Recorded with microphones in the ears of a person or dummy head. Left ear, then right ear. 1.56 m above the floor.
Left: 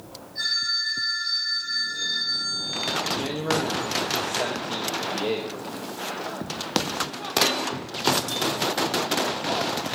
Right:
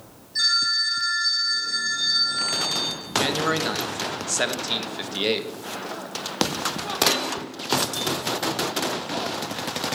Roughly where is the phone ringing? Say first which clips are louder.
Right 4 dB; right.